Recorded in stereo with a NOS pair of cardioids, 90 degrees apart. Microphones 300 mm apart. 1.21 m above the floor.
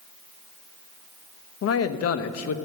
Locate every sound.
1.6 s a man speaking: 55° left, 1.1 m